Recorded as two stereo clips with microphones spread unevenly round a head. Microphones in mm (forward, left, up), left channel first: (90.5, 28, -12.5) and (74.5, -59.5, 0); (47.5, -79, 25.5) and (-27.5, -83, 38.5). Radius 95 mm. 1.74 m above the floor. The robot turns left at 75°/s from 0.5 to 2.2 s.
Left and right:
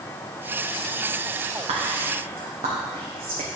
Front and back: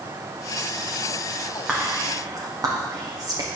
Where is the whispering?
100° right, 1.4 m; by 3.5 s 135° right, 1.4 m.